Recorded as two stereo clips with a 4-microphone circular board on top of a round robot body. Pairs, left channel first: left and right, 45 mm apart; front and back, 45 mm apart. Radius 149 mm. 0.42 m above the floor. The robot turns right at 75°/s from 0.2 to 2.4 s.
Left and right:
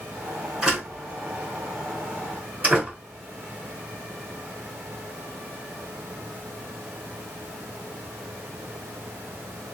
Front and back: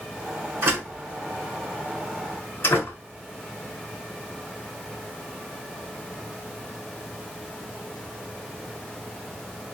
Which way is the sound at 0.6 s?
165° right.